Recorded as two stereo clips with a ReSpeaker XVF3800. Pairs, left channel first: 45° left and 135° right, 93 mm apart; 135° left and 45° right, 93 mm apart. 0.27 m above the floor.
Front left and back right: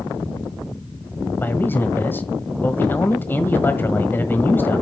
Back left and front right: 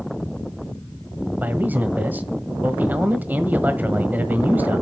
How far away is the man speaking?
About 1.4 m.